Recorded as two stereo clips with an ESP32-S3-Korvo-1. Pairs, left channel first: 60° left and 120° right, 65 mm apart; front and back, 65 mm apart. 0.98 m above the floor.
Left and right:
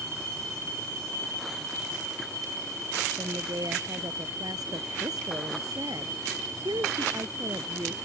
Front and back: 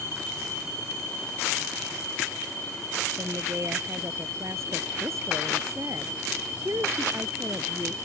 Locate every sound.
3.2 s a woman speaking: 135° right